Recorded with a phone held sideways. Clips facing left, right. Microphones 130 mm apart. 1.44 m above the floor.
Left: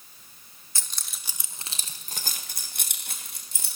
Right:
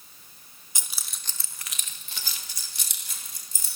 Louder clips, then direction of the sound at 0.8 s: Even; 15° right (ahead or behind).